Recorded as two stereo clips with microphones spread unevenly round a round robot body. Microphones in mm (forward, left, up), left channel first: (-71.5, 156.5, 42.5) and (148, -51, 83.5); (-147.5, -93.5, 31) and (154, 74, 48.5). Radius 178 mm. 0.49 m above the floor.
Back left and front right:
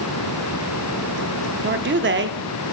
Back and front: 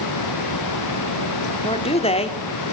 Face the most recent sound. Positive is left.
turn(degrees=-90)